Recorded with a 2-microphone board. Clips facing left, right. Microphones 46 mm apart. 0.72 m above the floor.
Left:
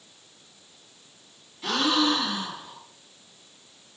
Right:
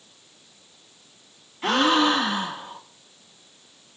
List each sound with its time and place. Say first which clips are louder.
1.6 s a gasp: right 4 dB; 40° right (ahead or behind), 0.6 m